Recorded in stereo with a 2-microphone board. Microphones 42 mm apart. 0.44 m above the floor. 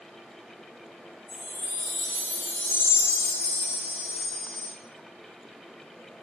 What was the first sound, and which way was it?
A chime, 5° right (ahead or behind).